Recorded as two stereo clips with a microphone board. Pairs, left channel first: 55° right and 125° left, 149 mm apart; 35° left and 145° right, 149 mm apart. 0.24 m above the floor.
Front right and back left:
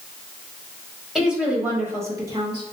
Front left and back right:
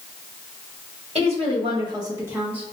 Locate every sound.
1.1 s a woman speaking: 150° right, 1.2 m; by 2.7 s 135° left, 1.0 m